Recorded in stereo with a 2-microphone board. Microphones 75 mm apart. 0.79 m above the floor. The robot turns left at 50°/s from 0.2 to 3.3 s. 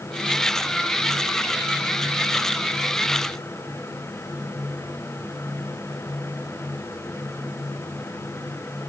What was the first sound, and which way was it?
Only background noise.